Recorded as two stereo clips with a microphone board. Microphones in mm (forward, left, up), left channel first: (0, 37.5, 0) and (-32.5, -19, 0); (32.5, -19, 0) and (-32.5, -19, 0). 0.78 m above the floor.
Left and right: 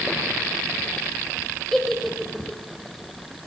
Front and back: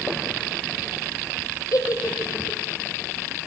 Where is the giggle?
25° right, 4.5 m.